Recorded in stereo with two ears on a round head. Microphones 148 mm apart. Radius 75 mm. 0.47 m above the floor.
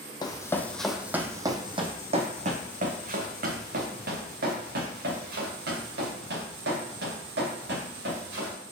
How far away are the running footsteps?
About 0.9 m.